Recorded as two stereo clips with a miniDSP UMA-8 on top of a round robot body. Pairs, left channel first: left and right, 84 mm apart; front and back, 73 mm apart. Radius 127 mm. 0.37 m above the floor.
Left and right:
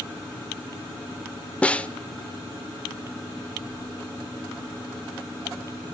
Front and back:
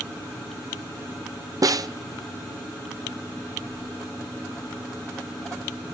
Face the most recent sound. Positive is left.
turn(degrees=165)